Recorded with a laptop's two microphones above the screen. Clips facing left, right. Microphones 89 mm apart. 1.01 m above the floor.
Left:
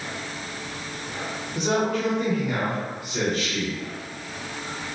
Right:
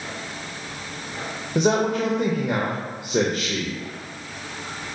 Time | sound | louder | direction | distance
1.6 | a man speaking | right 4 dB | 65° right (ahead or behind) | 0.7 m